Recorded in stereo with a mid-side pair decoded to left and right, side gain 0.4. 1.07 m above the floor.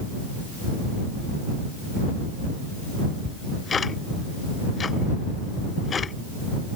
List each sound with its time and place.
3.2 s ticking: 45° left